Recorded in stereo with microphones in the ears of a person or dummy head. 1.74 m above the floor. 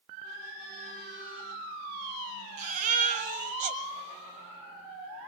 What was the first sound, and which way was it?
A baby crying, 40° right (ahead or behind).